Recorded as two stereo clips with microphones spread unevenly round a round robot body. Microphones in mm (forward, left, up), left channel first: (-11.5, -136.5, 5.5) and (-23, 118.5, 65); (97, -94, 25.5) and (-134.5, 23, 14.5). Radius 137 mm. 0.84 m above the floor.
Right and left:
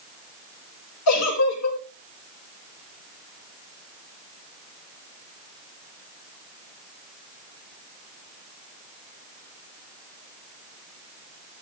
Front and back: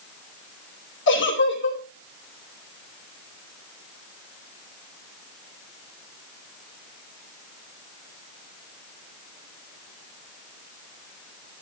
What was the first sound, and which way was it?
A giggle, 70° right.